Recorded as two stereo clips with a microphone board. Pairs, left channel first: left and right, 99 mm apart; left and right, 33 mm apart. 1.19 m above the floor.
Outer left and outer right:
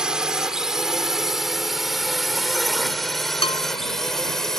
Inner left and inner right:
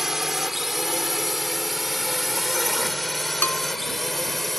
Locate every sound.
0.0 s a drone: 10° right (ahead or behind); by 4.6 s 5° left (ahead or behind)
3.4 s a bell: 75° left (ahead or behind)